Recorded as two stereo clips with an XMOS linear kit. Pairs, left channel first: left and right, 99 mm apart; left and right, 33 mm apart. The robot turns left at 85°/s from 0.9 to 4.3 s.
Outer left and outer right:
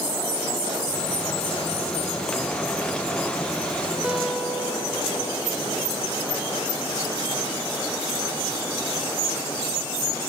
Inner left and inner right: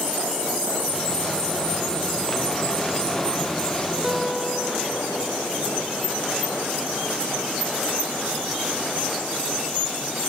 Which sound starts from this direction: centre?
A guitar, at 4.0 s.